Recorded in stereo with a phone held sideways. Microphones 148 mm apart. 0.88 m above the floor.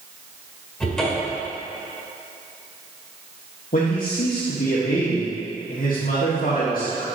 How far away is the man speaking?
About 1.4 m.